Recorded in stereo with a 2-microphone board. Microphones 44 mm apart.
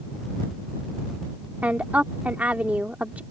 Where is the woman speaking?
45° right (ahead or behind).